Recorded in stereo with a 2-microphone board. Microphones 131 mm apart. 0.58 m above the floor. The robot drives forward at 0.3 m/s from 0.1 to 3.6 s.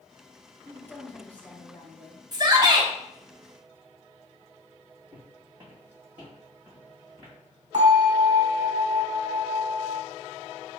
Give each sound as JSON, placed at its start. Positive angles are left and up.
{"t": 0.7, "sound": "a woman speaking", "side_deg": 10, "distance_m": 1.0}
{"t": 2.3, "sound": "a shout", "side_deg": -30, "distance_m": 0.8}
{"t": 5.1, "sound": "footsteps", "side_deg": -35, "distance_m": 1.6}
{"t": 7.7, "sound": "a bell", "side_deg": -70, "distance_m": 2.0}